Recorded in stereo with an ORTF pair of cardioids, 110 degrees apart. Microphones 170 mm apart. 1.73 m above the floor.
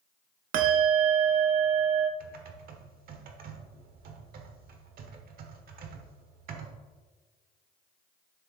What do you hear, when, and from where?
0.5 s a bell: 60° right, 0.8 m
2.2 s typing on a keyboard: 60° right, 1.2 m